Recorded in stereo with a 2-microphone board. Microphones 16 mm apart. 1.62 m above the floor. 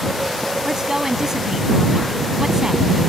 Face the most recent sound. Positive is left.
turn(degrees=-35)  # may be behind; listen again after turning